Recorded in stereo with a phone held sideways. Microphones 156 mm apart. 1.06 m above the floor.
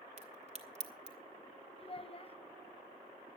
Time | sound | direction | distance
0.2 | a crack | 45° right (ahead or behind) | 1.9 m
1.8 | a child speaking | 40° left (ahead or behind) | 0.6 m